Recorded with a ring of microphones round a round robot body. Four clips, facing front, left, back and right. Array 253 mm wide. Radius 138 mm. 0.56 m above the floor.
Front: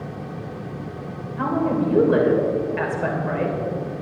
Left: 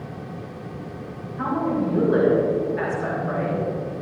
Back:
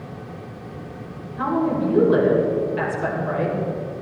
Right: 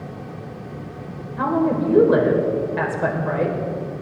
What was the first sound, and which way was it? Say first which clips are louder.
A woman speaking: right 4 dB, even; 75° right.